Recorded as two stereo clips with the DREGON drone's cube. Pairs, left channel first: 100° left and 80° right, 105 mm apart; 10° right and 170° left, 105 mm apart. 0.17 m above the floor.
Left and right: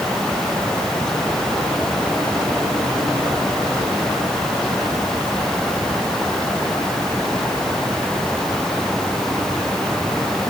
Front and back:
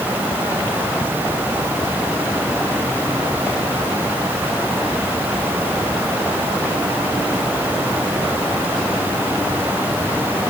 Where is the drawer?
I don't hear a drawer.